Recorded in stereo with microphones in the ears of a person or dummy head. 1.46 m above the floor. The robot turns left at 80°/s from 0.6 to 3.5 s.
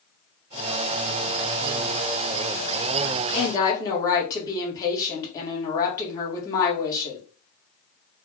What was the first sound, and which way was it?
A woman speaking, 40° left (ahead or behind).